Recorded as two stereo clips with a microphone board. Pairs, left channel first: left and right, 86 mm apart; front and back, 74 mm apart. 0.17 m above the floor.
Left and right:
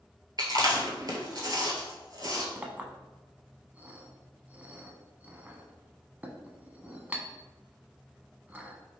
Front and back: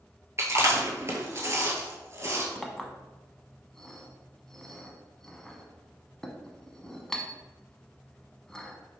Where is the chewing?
130° right, 1.0 m.